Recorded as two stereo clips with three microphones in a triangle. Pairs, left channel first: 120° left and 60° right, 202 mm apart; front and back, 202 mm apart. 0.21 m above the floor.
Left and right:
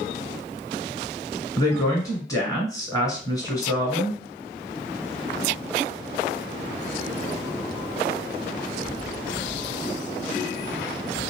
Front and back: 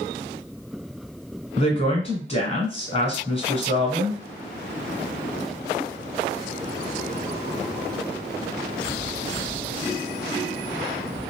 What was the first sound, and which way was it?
A woman speaking, 50° left.